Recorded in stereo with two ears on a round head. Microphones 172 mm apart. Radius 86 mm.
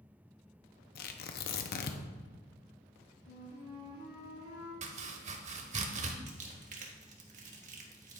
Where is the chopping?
35° right (ahead or behind), 0.9 m.